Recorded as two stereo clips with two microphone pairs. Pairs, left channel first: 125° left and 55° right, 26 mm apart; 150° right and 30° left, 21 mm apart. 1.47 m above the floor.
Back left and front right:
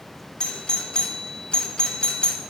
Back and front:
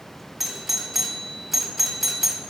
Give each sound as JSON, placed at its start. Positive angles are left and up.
{"t": 0.4, "sound": "a doorbell", "azimuth_deg": 110, "distance_m": 0.8}